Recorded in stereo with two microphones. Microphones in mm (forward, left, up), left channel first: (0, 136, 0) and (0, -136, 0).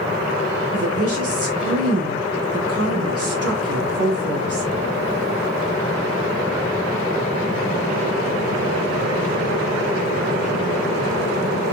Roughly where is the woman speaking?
Right.